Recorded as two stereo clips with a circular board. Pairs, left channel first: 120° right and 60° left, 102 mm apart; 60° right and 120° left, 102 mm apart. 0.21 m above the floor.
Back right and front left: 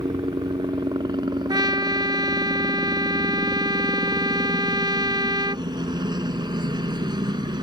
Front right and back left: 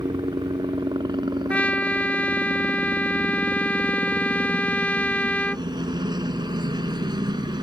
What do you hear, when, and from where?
0.0 s a helicopter: 90° left
1.5 s a trumpet: 15° left